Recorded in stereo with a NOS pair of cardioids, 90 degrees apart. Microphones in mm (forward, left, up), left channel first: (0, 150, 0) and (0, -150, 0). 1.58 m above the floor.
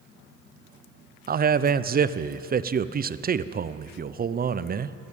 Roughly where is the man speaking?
Ahead right.